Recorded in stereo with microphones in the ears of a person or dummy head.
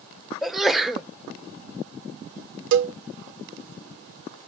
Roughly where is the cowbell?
Right.